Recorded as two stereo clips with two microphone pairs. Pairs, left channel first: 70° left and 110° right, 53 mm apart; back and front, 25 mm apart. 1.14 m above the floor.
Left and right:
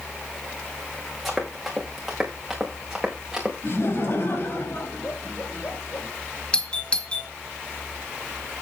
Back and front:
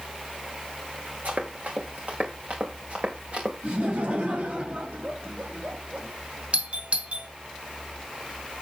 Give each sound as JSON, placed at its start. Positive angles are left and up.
{"t": 1.2, "sound": "running footsteps", "azimuth_deg": -20, "distance_m": 5.0}
{"t": 3.6, "sound": "laughter", "azimuth_deg": 25, "distance_m": 6.0}
{"t": 6.5, "sound": "a doorbell", "azimuth_deg": 5, "distance_m": 1.6}